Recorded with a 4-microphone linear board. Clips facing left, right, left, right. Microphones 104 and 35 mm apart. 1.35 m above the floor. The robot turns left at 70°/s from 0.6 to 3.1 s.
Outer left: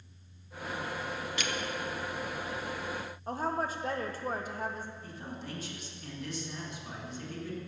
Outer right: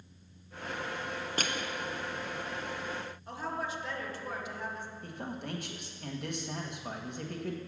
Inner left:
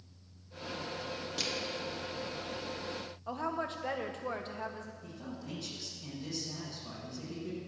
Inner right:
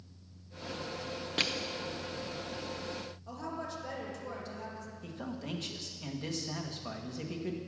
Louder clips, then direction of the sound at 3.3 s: Outer left 5 dB, inner left 6 dB; 40° left (ahead or behind).